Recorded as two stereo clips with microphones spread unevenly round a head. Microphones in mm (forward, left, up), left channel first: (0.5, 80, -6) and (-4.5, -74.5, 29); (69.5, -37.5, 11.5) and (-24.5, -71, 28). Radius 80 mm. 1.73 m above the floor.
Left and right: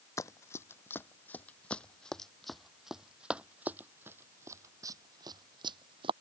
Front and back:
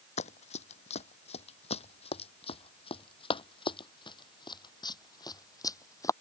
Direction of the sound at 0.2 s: 10° left.